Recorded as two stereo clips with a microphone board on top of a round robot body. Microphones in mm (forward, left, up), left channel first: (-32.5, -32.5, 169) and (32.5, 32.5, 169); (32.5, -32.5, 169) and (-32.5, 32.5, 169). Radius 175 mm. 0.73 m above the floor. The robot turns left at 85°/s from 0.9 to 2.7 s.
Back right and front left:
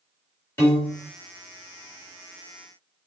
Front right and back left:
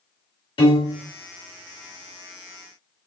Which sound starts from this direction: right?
A piano, at 0.6 s.